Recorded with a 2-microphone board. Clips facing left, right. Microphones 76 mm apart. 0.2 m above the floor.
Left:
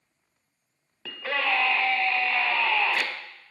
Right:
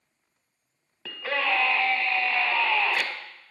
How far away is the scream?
About 1.0 m.